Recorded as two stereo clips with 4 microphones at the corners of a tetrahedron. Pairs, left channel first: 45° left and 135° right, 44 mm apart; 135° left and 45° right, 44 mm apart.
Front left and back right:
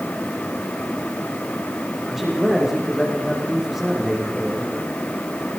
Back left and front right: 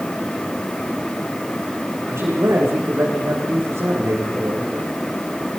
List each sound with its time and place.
2.1 s a man speaking: 50° right, 7.5 m